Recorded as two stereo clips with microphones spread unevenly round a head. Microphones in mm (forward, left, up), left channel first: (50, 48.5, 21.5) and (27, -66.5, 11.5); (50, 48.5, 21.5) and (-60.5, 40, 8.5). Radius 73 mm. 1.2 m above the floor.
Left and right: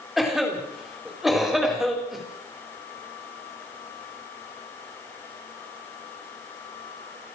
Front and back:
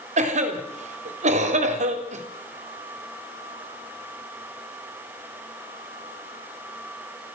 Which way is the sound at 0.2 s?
170° left.